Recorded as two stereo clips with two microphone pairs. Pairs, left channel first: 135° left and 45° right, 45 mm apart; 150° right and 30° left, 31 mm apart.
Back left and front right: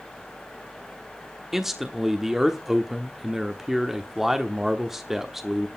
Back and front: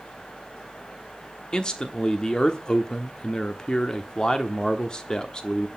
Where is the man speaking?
120° right, 1.1 m.